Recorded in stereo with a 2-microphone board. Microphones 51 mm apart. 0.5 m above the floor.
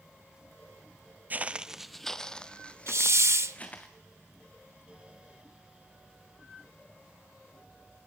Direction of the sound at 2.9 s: 65° right (ahead or behind).